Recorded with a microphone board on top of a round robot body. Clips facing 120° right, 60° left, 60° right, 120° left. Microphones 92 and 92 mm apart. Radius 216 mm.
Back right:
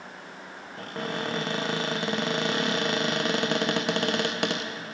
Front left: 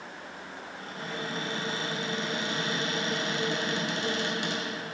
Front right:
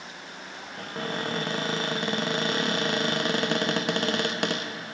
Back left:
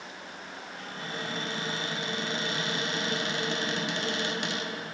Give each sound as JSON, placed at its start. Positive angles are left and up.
{"t": 0.8, "sound": "a cupboard door", "azimuth_deg": -95, "distance_m": 0.6}